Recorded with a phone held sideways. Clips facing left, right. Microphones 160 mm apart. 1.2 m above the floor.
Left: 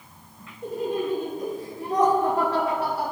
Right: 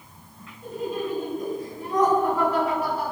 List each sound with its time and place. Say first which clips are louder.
0.6 s laughter: left 2 dB; 80° left, 4 m; by 3.1 s 75° left (ahead or behind), 3.5 m